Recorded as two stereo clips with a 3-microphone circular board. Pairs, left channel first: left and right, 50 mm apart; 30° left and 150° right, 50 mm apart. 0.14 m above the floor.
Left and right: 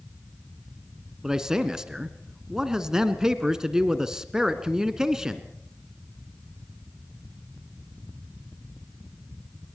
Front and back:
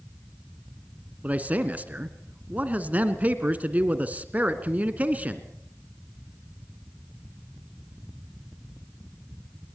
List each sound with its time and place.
1.2 s a man speaking: 160° right, 1.7 m